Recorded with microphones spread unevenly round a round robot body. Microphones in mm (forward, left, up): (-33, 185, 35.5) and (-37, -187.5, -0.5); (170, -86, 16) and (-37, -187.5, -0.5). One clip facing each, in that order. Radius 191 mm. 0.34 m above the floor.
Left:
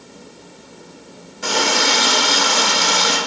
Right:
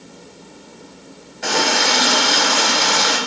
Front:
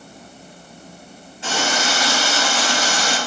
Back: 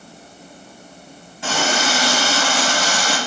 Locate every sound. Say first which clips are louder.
1.4 s a running tap: even, back 2 dB; 170° left, 1.3 m